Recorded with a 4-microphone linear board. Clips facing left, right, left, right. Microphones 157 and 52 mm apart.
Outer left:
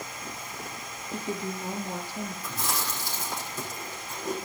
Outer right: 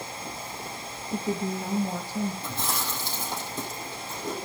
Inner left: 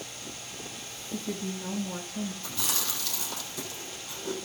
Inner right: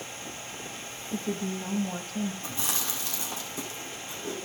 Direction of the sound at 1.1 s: 45° right (ahead or behind).